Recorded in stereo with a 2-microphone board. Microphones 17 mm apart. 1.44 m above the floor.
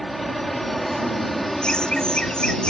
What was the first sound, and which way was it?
An aircraft, 15° left (ahead or behind).